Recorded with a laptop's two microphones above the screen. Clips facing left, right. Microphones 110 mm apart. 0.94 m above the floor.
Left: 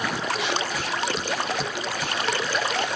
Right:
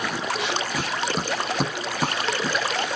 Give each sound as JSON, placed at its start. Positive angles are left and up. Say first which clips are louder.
{"t": 0.7, "sound": "running footsteps", "louder": "right 1 dB", "side_deg": -40}